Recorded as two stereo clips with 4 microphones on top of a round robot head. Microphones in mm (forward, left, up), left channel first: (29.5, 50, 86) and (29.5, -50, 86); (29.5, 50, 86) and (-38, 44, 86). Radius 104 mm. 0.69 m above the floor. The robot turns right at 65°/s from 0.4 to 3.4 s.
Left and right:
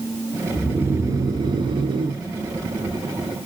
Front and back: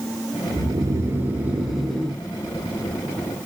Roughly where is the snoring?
Behind.